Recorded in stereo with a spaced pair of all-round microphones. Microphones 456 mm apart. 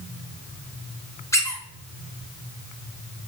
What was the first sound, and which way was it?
A squeak, 5° left (ahead or behind).